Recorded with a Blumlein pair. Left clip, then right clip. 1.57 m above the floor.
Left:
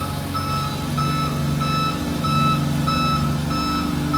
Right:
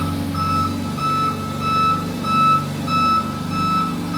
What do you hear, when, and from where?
0.0 s an engine running: 20° left, 0.8 m